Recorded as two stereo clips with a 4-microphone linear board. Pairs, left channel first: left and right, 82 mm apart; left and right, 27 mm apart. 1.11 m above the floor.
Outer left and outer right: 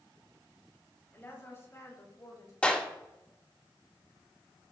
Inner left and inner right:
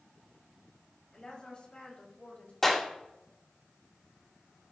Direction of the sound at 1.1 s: 30° left (ahead or behind).